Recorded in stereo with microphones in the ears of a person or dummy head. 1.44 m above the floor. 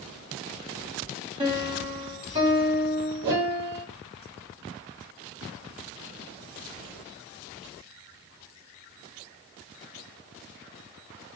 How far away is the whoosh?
About 0.9 m.